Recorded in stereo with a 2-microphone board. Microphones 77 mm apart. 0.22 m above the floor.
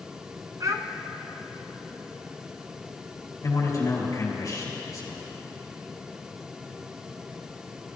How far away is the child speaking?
About 1.4 m.